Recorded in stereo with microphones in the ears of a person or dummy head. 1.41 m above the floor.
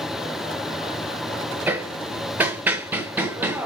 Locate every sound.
1.7 s hammering: 5° right (ahead or behind), 0.6 m